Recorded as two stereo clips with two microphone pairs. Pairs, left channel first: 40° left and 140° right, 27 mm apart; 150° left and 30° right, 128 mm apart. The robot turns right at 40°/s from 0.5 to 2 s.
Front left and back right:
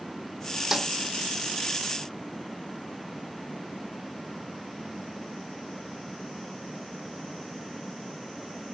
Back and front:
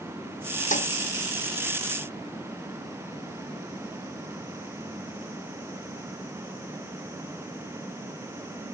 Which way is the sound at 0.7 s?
140° left.